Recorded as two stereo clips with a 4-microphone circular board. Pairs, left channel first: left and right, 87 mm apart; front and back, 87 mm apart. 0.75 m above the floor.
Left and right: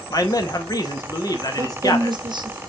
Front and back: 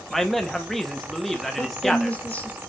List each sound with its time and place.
0.1 s a man speaking: 85° left, 0.8 m
1.6 s a woman speaking: 70° right, 0.9 m